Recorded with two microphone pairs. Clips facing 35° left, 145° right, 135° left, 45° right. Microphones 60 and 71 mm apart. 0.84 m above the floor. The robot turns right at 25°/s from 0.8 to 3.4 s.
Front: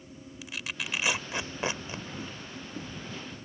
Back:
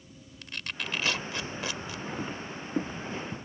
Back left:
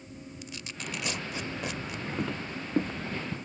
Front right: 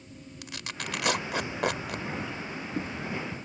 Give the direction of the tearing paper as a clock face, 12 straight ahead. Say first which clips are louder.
Even, front right 4 dB; 2 o'clock.